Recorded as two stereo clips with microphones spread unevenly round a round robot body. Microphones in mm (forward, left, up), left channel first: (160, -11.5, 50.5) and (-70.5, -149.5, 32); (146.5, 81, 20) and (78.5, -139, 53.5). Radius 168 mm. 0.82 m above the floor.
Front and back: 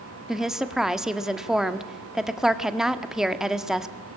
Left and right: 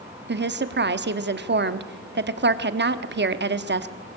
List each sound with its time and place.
0.3 s a woman speaking: 60° right, 1.5 m